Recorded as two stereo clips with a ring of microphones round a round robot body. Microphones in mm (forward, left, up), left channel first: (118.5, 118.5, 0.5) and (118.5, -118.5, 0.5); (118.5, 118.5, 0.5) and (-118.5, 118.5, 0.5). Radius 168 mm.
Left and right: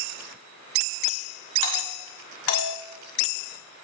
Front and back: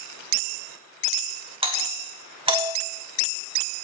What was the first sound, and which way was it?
A doorbell, 115° left.